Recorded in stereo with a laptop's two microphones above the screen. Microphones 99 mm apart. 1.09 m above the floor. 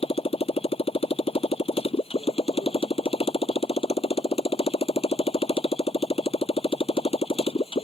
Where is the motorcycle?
75° left (ahead or behind).